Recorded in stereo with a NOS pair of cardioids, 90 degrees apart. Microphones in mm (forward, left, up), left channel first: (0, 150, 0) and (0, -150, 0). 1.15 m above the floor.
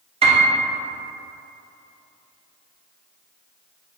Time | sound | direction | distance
0.2 | a piano | 20° right | 0.9 m